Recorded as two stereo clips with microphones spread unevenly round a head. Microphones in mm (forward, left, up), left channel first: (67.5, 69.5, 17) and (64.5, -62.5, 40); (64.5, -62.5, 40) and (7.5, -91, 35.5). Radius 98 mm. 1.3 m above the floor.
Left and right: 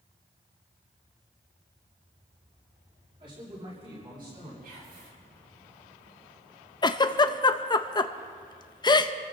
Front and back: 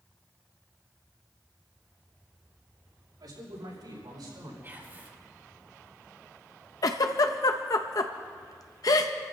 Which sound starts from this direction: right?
Whispering, at 4.6 s.